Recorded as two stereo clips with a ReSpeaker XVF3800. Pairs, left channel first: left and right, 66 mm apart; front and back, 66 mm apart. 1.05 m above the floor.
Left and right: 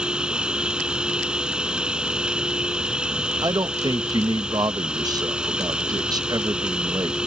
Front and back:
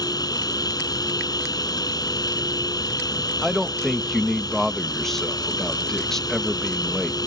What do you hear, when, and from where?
0.0 s an insect: 15° right
3.4 s a man speaking: 85° right